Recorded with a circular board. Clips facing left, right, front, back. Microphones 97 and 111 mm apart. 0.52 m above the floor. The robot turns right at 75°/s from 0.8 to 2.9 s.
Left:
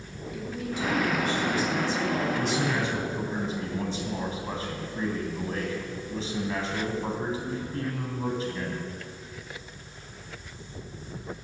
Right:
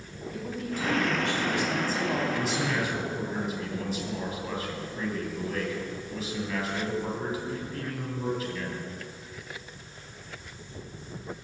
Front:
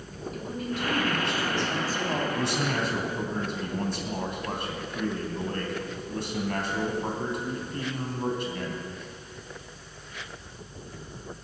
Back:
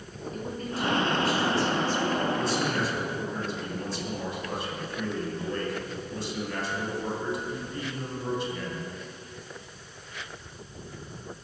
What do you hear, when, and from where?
0.3 s a woman speaking: 130° right, 3.5 m; by 2.2 s 20° right, 3.5 m
2.4 s a man speaking: 10° right, 3 m; by 8.8 s 30° left, 3 m